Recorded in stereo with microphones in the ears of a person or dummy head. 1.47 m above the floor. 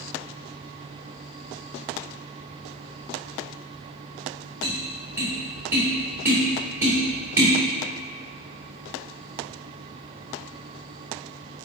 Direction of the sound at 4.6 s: 15° right (ahead or behind).